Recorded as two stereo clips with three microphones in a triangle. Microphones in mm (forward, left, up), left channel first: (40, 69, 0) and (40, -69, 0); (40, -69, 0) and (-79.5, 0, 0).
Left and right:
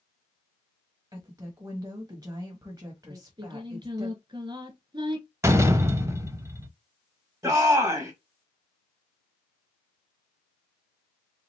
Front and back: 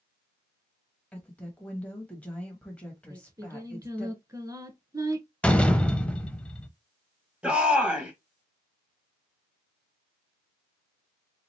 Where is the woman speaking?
100° right, 1.1 m.